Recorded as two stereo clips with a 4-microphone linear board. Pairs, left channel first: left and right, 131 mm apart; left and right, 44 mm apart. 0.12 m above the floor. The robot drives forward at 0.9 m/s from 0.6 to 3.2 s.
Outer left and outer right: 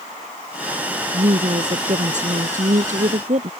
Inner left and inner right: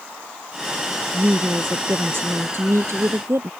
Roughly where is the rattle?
I don't hear a rattle.